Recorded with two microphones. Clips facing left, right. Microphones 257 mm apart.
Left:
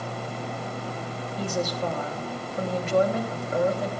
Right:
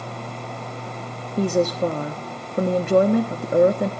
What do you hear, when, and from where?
1.4 s a woman speaking: 60° right (ahead or behind), 1.0 m